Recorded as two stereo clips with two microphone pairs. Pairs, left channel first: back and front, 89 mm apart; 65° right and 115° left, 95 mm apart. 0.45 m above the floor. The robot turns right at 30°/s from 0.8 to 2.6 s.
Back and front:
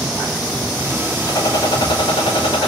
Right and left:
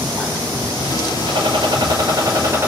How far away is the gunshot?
About 3 m.